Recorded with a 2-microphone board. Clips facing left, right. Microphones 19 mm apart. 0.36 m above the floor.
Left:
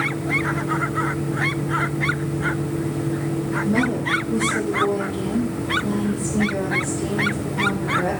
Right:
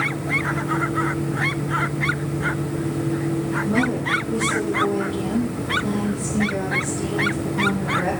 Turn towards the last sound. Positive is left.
turn(degrees=-50)  # may be behind; listen again after turning